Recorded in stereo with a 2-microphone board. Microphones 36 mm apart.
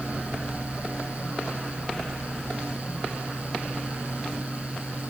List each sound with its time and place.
Only background noise.